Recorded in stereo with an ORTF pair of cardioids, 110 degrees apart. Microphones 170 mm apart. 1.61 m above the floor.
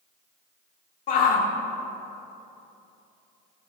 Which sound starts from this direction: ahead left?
A shout, at 1.1 s.